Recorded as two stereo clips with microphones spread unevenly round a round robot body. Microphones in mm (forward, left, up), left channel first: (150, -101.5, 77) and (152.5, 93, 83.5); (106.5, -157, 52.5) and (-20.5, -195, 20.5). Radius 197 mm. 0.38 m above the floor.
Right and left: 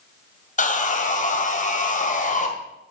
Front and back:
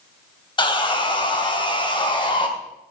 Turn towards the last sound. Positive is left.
turn(degrees=-45)